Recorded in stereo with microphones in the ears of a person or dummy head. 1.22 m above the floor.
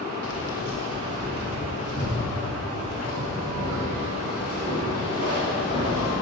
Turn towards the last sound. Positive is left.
turn(degrees=35)  # may be behind; listen again after turning